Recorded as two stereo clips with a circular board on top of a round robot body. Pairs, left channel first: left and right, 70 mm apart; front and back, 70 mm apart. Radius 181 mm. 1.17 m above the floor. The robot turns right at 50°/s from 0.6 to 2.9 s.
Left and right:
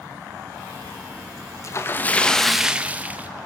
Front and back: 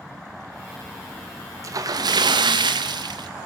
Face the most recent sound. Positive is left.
turn(degrees=-160)